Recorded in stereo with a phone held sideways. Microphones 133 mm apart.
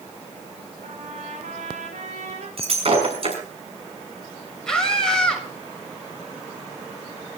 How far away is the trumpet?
About 5.5 m.